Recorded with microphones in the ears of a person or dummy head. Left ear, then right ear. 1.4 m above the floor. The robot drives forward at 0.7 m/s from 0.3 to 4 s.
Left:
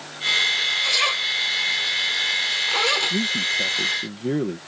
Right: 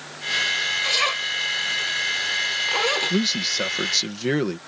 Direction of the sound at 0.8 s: 10° left (ahead or behind).